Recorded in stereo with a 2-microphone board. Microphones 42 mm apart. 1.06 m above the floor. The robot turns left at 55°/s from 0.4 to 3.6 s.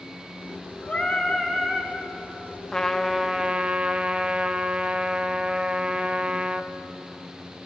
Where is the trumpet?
20° left, 0.6 m; by 6.7 s 30° right, 0.6 m.